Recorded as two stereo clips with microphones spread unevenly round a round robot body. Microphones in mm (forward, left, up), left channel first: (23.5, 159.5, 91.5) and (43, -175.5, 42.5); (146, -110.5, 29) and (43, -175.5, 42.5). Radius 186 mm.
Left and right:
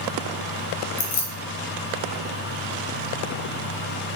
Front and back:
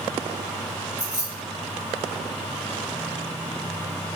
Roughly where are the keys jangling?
Behind left.